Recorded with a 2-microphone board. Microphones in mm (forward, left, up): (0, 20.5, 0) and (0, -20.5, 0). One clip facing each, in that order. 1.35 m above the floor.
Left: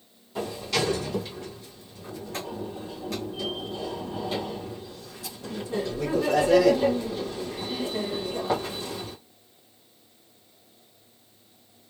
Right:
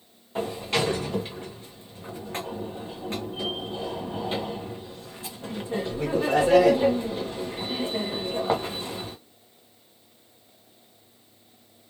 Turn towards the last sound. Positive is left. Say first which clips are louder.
# right 1 dB
turn(degrees=-30)  # may be behind; listen again after turning